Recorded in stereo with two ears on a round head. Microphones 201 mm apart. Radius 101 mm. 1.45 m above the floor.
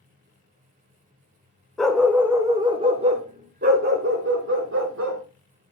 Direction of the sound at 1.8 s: Centre (ahead or behind).